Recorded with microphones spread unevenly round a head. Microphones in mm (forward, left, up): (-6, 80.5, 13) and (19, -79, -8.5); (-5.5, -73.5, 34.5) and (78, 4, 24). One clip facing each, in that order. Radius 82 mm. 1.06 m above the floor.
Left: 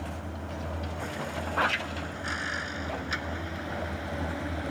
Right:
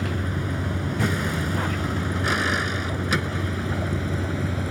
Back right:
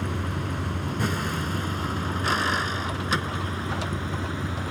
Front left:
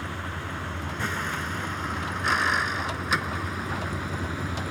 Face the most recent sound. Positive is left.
turn(degrees=-50)